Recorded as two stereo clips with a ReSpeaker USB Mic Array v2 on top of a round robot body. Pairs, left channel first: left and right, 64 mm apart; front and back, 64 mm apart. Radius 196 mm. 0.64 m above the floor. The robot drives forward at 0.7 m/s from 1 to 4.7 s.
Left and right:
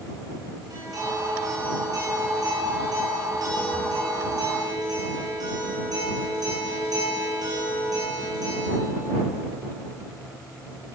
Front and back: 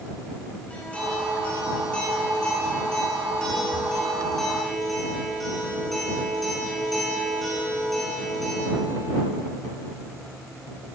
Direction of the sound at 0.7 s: 70° right.